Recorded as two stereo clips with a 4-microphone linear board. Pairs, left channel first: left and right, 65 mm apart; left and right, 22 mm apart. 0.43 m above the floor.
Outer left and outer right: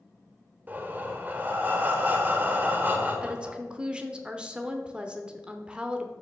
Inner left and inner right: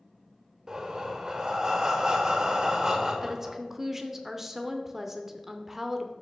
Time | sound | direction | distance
0.7 | breathing | 30° right (ahead or behind) | 1.0 m
3.2 | a woman speaking | 15° right (ahead or behind) | 0.8 m